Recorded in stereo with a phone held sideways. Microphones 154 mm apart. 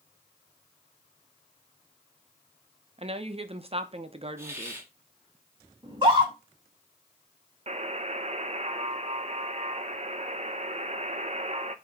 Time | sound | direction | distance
3.0 | a woman speaking | 40° right (ahead or behind) | 1.0 m
4.4 | a hiss | 15° right (ahead or behind) | 2.0 m
5.8 | a scream | 30° right (ahead or behind) | 4 m
7.7 | a buzzer | 45° right (ahead or behind) | 0.7 m